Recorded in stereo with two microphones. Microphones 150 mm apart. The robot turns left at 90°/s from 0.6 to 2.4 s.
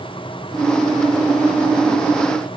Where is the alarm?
I don't hear an alarm.